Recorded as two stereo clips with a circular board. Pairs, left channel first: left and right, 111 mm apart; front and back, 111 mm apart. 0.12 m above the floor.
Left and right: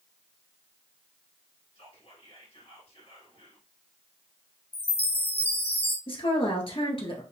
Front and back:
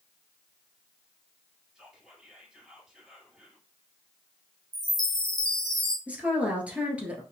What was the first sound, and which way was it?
Whispering, 95° left.